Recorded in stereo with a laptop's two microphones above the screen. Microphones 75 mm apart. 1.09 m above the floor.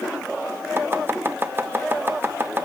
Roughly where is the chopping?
Right.